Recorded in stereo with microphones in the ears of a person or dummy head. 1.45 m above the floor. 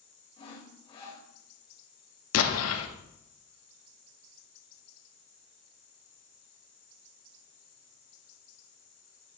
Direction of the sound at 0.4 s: 30° left (ahead or behind).